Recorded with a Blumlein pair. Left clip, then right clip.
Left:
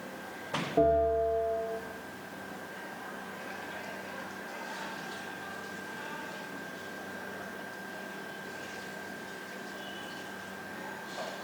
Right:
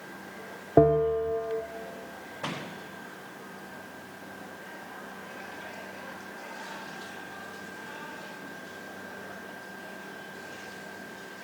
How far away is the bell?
About 0.5 m.